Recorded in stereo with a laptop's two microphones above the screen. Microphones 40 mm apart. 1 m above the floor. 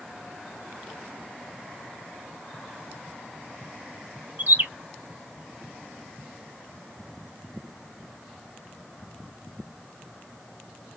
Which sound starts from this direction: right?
A bird, at 4.4 s.